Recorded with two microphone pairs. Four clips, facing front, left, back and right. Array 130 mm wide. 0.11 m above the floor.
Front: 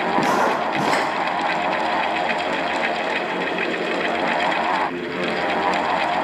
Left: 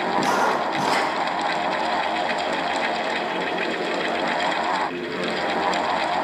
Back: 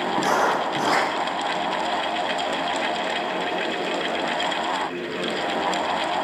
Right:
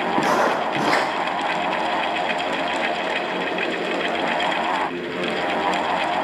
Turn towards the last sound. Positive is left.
turn(degrees=-90)